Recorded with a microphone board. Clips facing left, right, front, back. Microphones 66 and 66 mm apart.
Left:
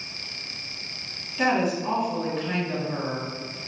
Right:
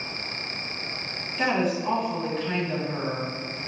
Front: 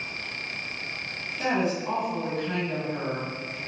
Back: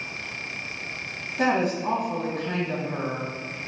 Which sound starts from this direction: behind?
A woman speaking, at 1.4 s.